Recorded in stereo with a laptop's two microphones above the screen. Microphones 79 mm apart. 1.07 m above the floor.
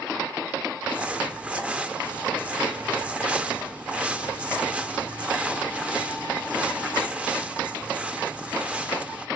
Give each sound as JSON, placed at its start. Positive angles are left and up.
{"t": 0.8, "sound": "crumpling", "side_deg": -15, "distance_m": 0.5}